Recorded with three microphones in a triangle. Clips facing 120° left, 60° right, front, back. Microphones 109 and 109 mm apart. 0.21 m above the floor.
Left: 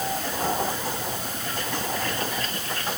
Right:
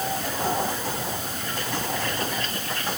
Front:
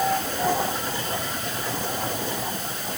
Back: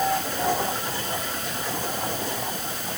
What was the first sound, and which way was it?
Only background noise.